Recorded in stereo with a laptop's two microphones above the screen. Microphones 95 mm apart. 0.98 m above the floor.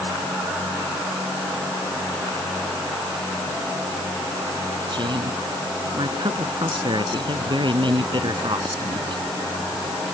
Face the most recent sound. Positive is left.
turn(degrees=-55)  # may be behind; listen again after turning